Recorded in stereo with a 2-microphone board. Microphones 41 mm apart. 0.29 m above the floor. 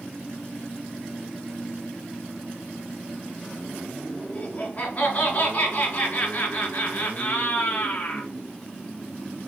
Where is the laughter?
35° left (ahead or behind), 3 m.